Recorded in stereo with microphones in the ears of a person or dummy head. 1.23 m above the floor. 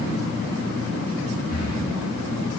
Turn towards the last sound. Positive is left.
turn(degrees=80)